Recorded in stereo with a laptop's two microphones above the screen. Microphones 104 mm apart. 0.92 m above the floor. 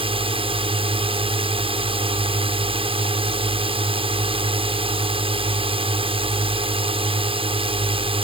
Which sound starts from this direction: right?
A drone, at 0.0 s.